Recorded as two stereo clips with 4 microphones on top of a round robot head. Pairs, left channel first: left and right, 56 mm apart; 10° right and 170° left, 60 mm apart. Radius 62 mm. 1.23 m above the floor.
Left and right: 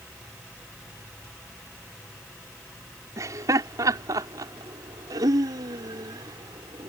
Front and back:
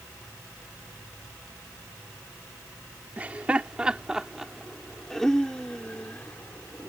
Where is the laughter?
115° right; by 6.9 s 75° right.